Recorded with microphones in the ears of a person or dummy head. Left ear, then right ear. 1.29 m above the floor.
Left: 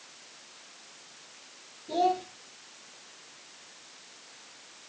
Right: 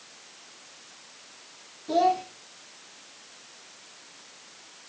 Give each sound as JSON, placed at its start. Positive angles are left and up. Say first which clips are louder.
{"t": 1.9, "sound": "a child speaking", "louder": "right 4 dB", "side_deg": -65, "distance_m": 1.3}